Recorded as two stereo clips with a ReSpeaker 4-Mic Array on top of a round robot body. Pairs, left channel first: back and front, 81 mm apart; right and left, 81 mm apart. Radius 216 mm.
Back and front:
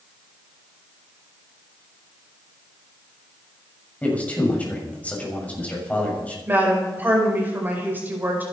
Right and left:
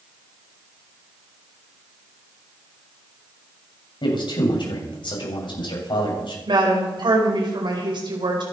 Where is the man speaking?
110° right, 7 m.